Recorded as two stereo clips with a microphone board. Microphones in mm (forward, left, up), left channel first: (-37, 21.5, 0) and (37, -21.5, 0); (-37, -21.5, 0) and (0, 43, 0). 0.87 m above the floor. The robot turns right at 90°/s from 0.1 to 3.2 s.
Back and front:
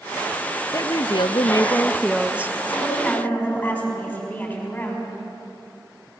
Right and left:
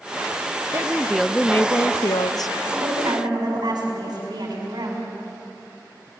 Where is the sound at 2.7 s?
35° left, 6 m; by 5.0 s 80° left, 6 m.